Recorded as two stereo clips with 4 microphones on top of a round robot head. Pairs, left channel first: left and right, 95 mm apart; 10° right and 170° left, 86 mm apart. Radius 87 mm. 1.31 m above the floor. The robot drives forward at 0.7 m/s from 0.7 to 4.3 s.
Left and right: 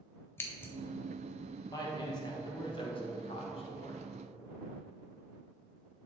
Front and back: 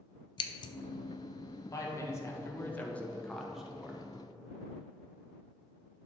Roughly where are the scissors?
Ahead.